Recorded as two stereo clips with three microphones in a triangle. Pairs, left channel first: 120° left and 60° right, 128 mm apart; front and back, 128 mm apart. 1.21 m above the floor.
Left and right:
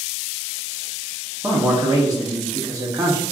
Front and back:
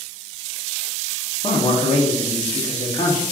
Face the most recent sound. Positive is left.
turn(degrees=-10)